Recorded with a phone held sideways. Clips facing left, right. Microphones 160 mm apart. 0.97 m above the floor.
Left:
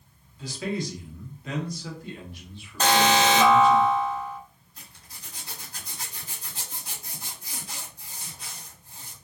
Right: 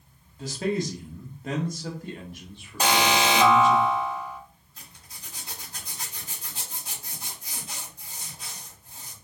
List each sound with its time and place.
0.4 s a man speaking: 45° right (ahead or behind), 1.5 m
2.8 s an alarm: 10° right (ahead or behind), 0.8 m
4.8 s a zipper: 25° right (ahead or behind), 2 m